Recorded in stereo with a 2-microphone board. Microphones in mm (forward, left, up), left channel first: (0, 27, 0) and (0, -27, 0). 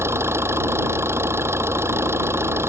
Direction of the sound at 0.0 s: 50° right (ahead or behind).